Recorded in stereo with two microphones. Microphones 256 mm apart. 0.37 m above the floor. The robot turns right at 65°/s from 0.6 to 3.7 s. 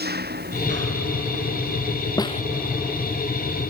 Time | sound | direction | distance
0.0 | an engine running | 140° right | ?
2.2 | a snare drum | 15° left (ahead or behind) | ?